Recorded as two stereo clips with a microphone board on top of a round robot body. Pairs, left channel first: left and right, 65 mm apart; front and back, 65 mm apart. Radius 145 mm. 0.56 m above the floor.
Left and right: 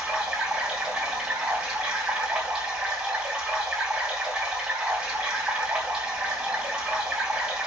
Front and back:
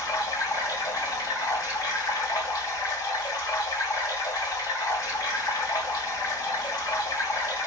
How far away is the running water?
About 3.5 m.